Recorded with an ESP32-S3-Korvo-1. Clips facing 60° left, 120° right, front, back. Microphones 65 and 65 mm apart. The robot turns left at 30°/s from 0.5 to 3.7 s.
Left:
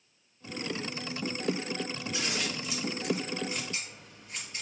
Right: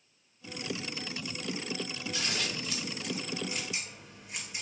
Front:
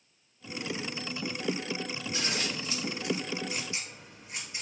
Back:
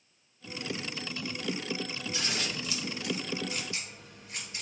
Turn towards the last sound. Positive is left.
turn(degrees=-50)